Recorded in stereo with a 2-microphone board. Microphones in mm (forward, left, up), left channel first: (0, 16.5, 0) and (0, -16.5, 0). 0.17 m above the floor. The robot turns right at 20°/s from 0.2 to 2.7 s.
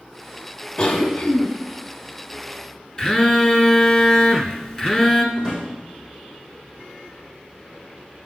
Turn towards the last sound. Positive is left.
turn(degrees=0)  # may be behind; listen again after turning